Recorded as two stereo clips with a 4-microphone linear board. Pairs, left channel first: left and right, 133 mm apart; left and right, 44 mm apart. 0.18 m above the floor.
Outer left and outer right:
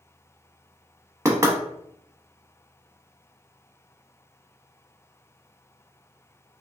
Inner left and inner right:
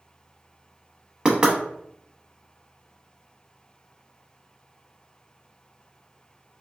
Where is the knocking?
20° right (ahead or behind), 0.7 m.